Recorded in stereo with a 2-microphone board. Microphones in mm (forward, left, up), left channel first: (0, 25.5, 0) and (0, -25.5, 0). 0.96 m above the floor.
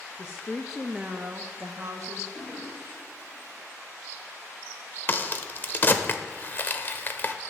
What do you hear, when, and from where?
0.2 s a woman speaking: 45° left (ahead or behind), 0.7 m; by 2.2 s 65° right (ahead or behind), 1.4 m
2.3 s a toilet flushing: 25° left (ahead or behind), 5.5 m
5.1 s a crack: 35° left (ahead or behind), 0.8 m